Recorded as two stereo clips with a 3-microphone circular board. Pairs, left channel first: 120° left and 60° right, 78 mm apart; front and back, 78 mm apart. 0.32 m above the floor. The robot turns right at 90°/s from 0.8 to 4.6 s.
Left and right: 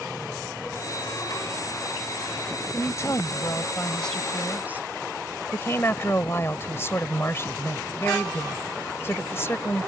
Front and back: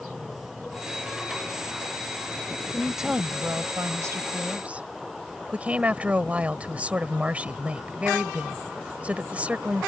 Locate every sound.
2.7 s a woman speaking: 75° left; by 4.9 s 115° right
5.5 s a woman speaking: 125° left